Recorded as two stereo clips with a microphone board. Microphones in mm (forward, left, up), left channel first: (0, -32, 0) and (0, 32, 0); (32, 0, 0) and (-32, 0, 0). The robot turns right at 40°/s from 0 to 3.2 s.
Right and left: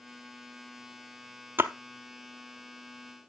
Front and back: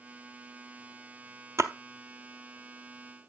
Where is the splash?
145° left, 0.6 m; by 1.7 s 150° left, 0.6 m.